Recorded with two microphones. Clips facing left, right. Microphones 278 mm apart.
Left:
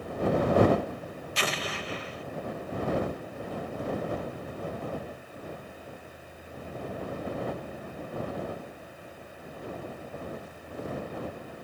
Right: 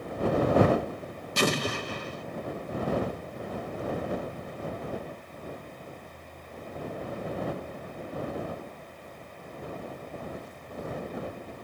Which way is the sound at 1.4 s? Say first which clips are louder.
Right 8 dB; 50° right (ahead or behind).